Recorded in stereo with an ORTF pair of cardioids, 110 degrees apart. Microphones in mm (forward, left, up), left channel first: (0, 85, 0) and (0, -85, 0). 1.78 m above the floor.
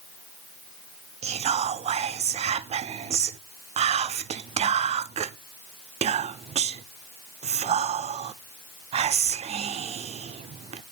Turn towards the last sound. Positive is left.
turn(degrees=-40)